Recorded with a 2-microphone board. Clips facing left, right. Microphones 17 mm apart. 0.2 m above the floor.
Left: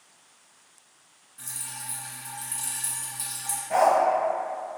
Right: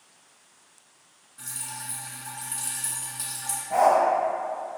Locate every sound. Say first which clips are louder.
1.4 s dripping: right 1 dB; 15° right (ahead or behind), 1.2 m
3.7 s a dog barking: right 1 dB; 40° left (ahead or behind), 1.1 m